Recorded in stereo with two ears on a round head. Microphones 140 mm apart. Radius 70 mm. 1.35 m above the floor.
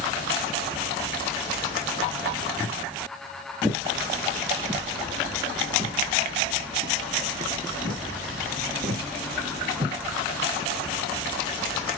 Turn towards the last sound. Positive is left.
turn(degrees=-55)  # may be behind; listen again after turning